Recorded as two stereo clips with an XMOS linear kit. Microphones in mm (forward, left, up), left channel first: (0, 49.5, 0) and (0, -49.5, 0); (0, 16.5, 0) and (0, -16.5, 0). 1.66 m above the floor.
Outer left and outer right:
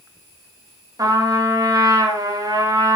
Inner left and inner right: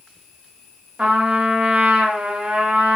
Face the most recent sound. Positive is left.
turn(degrees=-40)  # may be behind; listen again after turning